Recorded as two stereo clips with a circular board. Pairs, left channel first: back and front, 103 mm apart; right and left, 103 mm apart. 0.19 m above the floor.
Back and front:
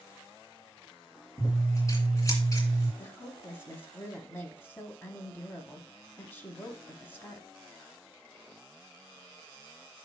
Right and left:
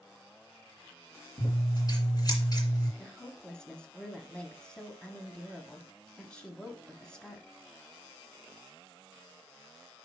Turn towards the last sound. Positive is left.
turn(degrees=-155)